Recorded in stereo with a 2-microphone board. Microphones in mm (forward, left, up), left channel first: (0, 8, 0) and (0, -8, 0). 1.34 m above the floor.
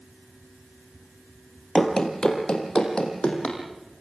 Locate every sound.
1.8 s running footsteps: 50° left (ahead or behind), 2.5 m; by 3.6 s 70° left (ahead or behind), 4.5 m